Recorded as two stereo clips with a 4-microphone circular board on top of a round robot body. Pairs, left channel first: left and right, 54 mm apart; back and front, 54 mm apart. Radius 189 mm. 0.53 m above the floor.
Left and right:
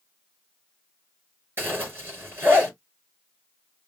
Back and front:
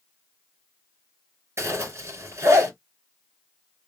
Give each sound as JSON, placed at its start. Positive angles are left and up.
{"t": 1.6, "sound": "a zipper", "azimuth_deg": -35, "distance_m": 4.0}